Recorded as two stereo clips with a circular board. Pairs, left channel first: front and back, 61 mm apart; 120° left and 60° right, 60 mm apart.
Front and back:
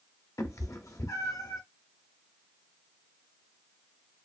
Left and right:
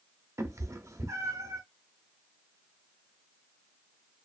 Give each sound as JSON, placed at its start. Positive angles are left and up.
{"t": 0.4, "sound": "a cat meowing", "azimuth_deg": -30, "distance_m": 0.5}